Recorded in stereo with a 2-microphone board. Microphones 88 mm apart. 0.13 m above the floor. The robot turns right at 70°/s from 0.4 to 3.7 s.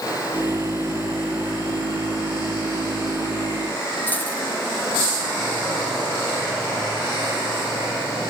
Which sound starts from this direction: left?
A dropped coin, at 4.1 s.